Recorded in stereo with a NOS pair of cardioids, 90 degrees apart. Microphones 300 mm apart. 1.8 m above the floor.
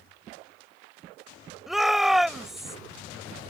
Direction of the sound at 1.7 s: Straight ahead.